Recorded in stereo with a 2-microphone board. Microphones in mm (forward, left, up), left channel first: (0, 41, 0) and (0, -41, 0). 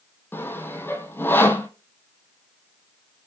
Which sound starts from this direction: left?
Sawing, at 0.3 s.